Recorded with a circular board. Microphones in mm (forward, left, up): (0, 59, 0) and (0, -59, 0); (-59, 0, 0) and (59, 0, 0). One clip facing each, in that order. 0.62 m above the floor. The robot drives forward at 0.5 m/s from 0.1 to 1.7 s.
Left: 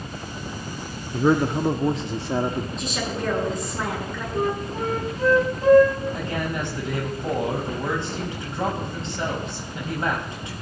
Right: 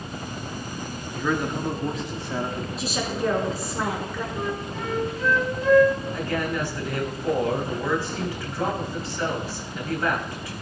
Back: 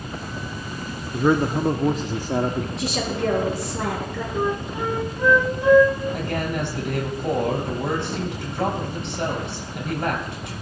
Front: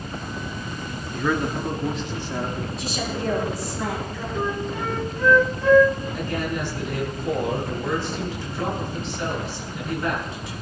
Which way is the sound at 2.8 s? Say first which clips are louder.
Right 1 dB, back 3 dB; 175° right.